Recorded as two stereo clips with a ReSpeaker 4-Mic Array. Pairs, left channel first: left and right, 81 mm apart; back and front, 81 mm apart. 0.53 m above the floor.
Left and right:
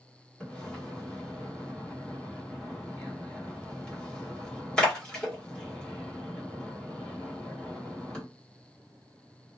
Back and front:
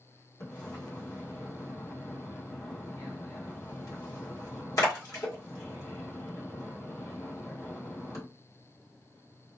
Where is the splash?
165° left, 1.2 m.